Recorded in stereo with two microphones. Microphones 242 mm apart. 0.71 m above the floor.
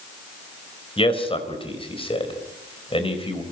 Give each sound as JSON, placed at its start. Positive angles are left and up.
{"t": 1.0, "sound": "a man speaking", "side_deg": 20, "distance_m": 4.0}